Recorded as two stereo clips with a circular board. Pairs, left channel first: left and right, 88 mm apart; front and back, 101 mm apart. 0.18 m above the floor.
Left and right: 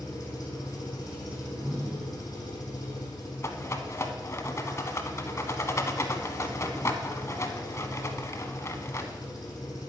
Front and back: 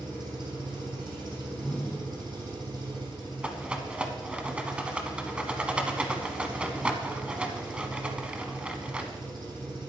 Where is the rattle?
110° left, 0.9 m.